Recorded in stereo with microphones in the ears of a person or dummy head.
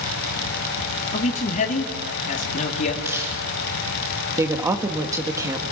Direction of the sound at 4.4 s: 15° right (ahead or behind).